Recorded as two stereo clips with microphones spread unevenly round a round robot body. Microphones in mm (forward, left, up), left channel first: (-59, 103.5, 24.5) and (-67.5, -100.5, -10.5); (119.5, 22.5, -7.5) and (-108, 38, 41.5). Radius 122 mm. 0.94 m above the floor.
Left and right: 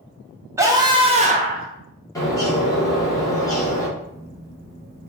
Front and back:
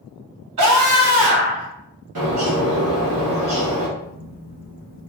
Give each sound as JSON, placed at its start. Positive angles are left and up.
{"t": 0.6, "sound": "a scream", "azimuth_deg": -165, "distance_m": 1.5}
{"t": 2.1, "sound": "a bird", "azimuth_deg": 165, "distance_m": 2.0}
{"t": 4.0, "sound": "a phone buzzing", "azimuth_deg": -150, "distance_m": 1.8}